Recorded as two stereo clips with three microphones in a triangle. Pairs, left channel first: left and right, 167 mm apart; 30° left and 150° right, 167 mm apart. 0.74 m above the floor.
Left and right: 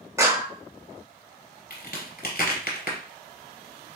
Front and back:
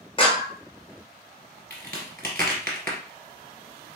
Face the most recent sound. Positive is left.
turn(degrees=105)